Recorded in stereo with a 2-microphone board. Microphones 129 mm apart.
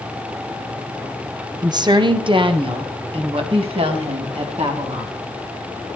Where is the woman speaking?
30° right (ahead or behind), 0.7 m; by 5.3 s 50° right (ahead or behind), 2.5 m.